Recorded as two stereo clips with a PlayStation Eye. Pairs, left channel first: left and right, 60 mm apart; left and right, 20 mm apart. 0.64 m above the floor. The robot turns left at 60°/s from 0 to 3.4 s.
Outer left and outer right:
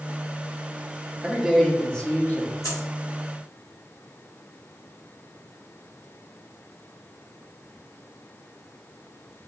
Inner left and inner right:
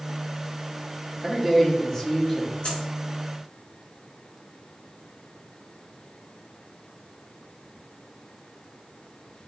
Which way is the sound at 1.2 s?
160° right.